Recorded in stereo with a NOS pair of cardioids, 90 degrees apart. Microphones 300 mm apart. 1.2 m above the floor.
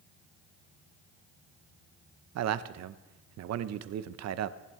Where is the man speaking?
60° right, 0.7 m.